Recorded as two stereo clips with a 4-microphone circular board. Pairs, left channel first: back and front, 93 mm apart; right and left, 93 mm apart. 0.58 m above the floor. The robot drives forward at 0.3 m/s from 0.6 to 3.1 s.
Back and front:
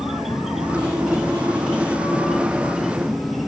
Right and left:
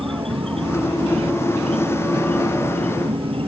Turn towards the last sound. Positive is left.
turn(degrees=90)